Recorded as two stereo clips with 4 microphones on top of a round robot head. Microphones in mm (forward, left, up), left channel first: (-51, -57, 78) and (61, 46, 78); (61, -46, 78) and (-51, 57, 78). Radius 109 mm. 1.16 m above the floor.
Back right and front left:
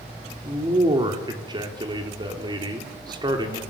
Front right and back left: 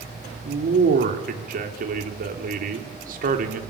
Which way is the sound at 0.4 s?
105° left.